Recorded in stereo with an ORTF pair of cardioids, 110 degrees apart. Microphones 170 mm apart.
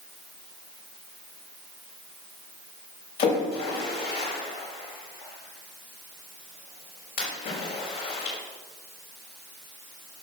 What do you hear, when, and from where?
3.2 s a splash: 70° left, 5.5 m